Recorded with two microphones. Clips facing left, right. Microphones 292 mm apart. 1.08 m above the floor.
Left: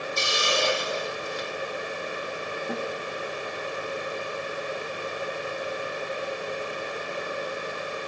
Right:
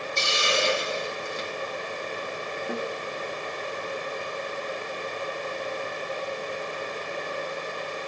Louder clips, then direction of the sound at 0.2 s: Right 1 dB; 30° right (ahead or behind).